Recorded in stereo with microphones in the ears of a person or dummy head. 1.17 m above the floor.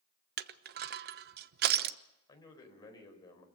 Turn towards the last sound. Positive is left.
turn(degrees=25)  # may be behind; listen again after turning